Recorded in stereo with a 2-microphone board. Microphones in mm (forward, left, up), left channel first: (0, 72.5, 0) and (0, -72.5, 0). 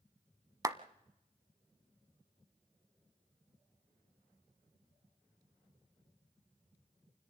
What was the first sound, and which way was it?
A clap, 25° right (ahead or behind).